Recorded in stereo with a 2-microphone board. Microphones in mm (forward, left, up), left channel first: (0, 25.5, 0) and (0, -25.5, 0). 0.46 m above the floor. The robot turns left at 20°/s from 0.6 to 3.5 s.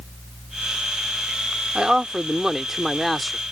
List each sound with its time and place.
1.8 s a man speaking: 15° right (ahead or behind); by 3.4 s centre (ahead or behind)